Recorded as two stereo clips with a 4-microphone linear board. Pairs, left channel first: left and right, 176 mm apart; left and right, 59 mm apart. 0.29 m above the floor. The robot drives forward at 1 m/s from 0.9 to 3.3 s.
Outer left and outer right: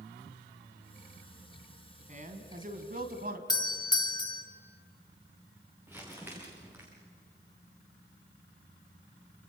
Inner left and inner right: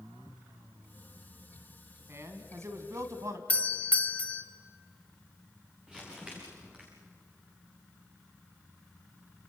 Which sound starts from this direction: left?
A doorbell, at 3.5 s.